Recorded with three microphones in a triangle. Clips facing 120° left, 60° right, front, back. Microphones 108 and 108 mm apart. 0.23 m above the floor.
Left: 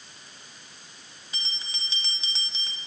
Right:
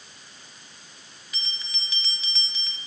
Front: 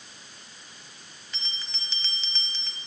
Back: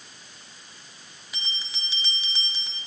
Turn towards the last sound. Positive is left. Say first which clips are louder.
# left 1 dB, back 4 dB
turn(degrees=110)